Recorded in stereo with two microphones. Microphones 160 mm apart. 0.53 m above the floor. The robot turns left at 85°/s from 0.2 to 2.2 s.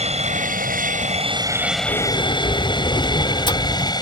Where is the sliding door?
50° left (ahead or behind); by 3.9 s 30° left (ahead or behind).